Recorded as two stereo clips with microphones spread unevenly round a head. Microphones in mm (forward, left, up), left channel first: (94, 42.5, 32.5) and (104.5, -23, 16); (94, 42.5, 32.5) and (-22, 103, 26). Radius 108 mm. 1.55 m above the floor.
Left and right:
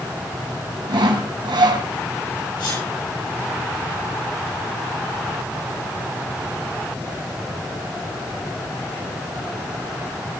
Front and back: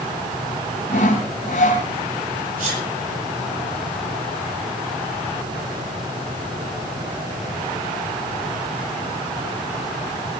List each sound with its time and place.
0.9 s sawing: 85° right, 3.5 m
2.6 s a sneeze: 145° left, 9 m